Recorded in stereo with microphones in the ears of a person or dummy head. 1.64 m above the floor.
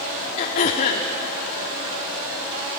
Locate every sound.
0.4 s throat clearing: 30° left (ahead or behind), 1.3 m